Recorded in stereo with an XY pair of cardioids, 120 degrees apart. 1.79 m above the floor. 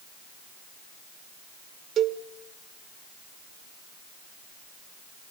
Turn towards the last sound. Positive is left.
turn(degrees=-50)